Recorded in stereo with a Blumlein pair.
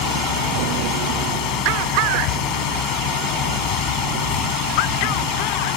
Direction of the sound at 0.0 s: 40° left.